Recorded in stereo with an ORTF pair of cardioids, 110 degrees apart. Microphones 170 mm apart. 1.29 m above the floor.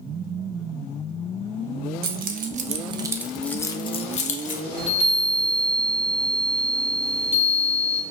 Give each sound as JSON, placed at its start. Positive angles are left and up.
{"t": 2.0, "sound": "keys jangling", "azimuth_deg": -60, "distance_m": 0.8}
{"t": 4.8, "sound": "a chime", "azimuth_deg": 35, "distance_m": 1.4}